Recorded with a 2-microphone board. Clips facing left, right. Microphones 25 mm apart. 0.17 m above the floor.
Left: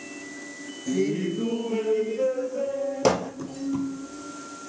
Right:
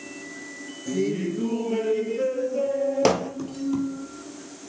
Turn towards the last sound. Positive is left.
turn(degrees=-20)  # may be behind; listen again after turning